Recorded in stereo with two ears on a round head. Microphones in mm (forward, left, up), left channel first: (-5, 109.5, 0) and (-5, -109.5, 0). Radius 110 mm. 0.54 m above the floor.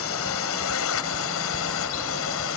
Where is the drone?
65° left (ahead or behind); by 2.6 s 60° left (ahead or behind).